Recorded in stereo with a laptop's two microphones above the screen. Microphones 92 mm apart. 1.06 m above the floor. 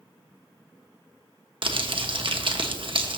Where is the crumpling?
60° right (ahead or behind), 1.0 m.